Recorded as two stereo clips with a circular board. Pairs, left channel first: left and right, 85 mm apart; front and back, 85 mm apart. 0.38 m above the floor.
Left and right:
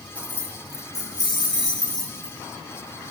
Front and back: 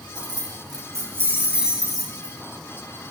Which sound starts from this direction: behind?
Keys jangling, at 0.1 s.